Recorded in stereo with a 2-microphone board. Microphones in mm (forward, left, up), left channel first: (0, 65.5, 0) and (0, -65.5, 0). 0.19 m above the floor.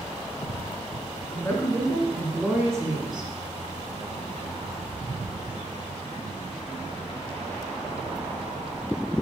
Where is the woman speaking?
25° left (ahead or behind), 2.5 m; by 3.3 s 40° right (ahead or behind), 2.5 m.